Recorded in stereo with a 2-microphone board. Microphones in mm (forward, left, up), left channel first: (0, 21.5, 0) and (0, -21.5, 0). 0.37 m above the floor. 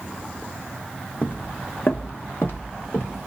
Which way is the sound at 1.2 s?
40° left (ahead or behind).